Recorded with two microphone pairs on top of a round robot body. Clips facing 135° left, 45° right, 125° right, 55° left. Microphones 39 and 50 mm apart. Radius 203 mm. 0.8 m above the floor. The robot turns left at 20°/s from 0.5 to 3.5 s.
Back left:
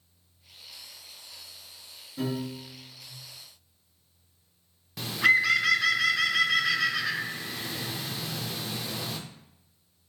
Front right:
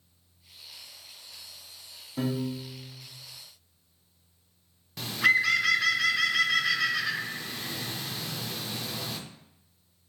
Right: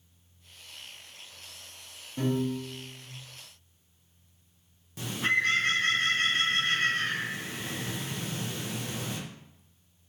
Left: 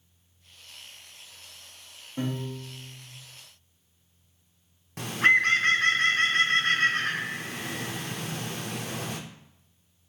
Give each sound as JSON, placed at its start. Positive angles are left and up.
{"t": 2.2, "sound": "a piano", "azimuth_deg": -10, "distance_m": 0.6}
{"t": 5.0, "sound": "a bird", "azimuth_deg": 50, "distance_m": 0.6}